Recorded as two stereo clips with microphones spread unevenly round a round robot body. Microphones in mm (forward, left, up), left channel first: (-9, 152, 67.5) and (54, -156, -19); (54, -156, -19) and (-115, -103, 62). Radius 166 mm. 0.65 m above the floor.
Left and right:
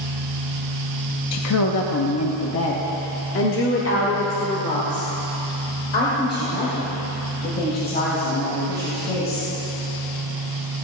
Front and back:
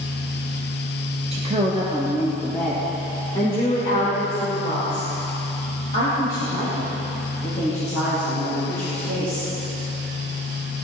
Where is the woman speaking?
85° left, 0.8 m; by 9.5 s 40° left, 5 m.